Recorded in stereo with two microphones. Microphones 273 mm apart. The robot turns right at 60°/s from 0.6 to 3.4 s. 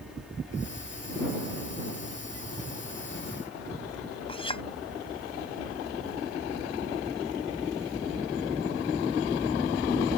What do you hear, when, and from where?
4.3 s a clink: 20° left (ahead or behind)